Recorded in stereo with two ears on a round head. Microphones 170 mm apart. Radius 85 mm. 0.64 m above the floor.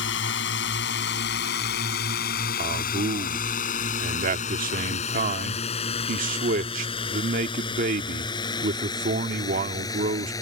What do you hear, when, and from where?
0.0 s a drone: 70° left (ahead or behind); by 10.4 s 20° left (ahead or behind)
2.6 s a man speaking: 45° right (ahead or behind)